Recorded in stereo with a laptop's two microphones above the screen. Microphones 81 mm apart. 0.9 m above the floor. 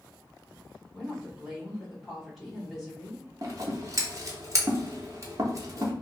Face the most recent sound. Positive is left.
turn(degrees=-40)  # may be behind; listen again after turning